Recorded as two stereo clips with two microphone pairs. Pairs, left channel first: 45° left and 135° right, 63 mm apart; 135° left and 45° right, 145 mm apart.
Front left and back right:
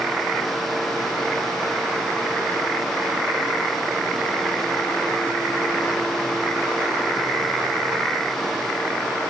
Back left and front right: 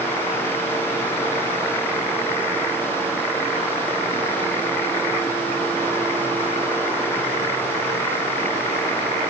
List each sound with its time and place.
Only background noise.